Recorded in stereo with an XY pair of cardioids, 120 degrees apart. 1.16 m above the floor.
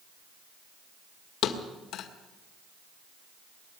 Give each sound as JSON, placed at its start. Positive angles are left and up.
{"t": 1.4, "sound": "a thud", "azimuth_deg": 65, "distance_m": 1.9}